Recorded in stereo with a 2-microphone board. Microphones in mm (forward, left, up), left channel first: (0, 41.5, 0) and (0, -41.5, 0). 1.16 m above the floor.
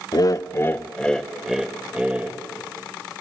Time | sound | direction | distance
0.1 | laughter | 50° left (ahead or behind) | 0.7 m